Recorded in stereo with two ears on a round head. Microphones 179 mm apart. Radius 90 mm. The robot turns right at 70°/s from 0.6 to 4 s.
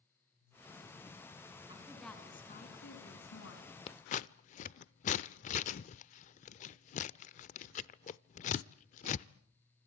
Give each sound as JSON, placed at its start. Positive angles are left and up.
{"t": 1.7, "sound": "a woman speaking", "azimuth_deg": -20, "distance_m": 5.0}
{"t": 3.9, "sound": "scissors", "side_deg": 30, "distance_m": 0.5}